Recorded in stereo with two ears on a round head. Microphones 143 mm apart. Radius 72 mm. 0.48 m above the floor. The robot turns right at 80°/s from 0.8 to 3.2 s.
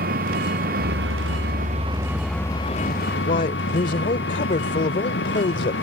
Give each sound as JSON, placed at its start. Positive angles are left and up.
{"t": 0.0, "sound": "an engine running", "azimuth_deg": -115}
{"t": 3.3, "sound": "a man speaking", "side_deg": 50}